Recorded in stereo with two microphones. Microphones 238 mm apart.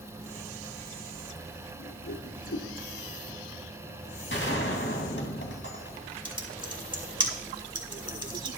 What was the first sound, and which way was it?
A whoosh, 65° left (ahead or behind).